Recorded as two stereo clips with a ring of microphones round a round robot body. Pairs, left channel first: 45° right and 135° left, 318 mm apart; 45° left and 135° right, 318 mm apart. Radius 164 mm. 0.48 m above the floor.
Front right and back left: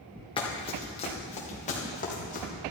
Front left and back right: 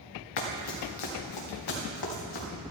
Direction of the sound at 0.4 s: 30° left.